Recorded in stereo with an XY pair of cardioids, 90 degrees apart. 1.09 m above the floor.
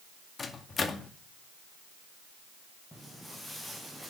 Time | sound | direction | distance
0.4 | a microwave | 40° left | 2 m
2.9 | footsteps | 5° left | 6 m